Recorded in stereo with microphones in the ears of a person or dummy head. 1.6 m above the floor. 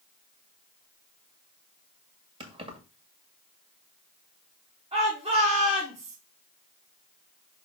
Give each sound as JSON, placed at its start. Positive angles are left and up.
{"t": 2.4, "sound": "keys jangling", "side_deg": -30, "distance_m": 1.9}
{"t": 4.9, "sound": "a shout", "side_deg": -25, "distance_m": 2.5}